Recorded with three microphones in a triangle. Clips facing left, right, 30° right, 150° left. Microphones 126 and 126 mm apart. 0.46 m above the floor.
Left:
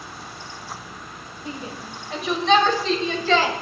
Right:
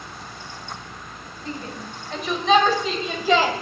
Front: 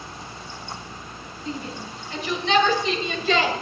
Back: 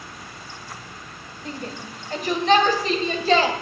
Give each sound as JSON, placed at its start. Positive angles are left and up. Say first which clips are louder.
{"t": 1.4, "sound": "a shout", "louder": "right 1 dB, front 1 dB", "azimuth_deg": 165, "distance_m": 2.0}